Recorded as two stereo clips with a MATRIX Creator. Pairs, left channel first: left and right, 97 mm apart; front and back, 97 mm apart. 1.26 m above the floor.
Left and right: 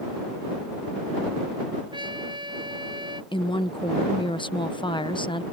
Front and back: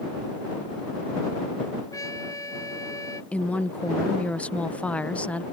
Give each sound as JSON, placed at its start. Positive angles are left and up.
{"t": 1.9, "sound": "a trumpet", "azimuth_deg": -55}
{"t": 3.3, "sound": "a woman speaking", "azimuth_deg": 75}